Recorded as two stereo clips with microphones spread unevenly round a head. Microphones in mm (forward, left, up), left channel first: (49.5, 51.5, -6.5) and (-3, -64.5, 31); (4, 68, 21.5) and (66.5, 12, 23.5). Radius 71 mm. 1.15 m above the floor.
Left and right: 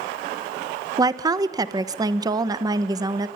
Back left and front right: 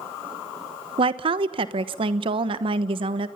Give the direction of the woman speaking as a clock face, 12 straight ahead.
2 o'clock.